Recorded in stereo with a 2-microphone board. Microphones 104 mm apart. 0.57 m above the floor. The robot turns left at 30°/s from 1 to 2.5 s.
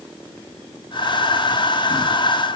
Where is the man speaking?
I don't hear a man speaking.